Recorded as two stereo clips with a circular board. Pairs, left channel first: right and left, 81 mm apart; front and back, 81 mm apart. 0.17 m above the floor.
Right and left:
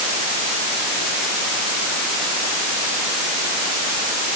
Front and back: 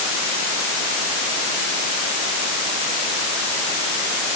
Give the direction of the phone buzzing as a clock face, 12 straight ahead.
No phone buzzing in this recording.